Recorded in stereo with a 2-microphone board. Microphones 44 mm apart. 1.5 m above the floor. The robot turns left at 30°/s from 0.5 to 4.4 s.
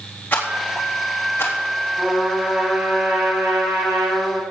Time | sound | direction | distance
0.3 | a rattle | 50° left (ahead or behind) | 3.5 m
2.0 | a trumpet | 20° right | 5 m